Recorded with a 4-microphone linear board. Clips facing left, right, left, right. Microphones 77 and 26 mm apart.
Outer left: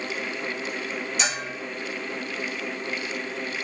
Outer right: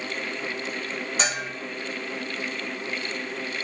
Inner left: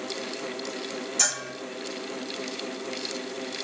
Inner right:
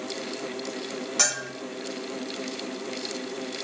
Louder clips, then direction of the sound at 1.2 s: Outer right 2 dB, inner right 2 dB; 40° right (ahead or behind).